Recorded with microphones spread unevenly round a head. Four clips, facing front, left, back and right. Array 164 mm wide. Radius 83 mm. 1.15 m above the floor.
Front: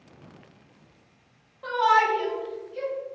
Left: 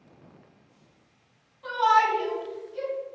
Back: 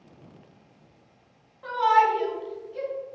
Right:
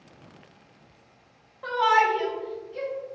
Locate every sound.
1.6 s a shout: 65° right, 1.5 m; by 2.9 s 110° right, 1.1 m